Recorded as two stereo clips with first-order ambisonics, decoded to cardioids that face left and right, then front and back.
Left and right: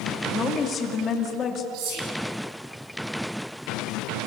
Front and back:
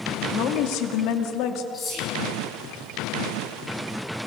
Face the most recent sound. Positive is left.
turn(degrees=-65)